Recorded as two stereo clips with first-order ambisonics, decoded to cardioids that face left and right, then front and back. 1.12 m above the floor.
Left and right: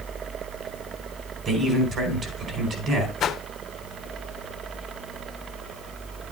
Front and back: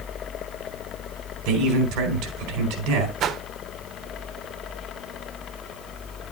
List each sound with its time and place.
1.4 s a man speaking: 145° right, 4 m
3.2 s a whoosh: 140° left, 0.6 m